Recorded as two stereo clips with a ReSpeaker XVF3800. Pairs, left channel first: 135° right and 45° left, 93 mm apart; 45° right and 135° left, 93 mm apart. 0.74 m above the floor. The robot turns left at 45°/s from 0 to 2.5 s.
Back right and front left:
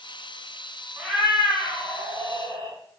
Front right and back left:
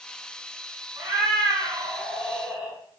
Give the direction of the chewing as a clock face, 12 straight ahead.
I don't hear chewing.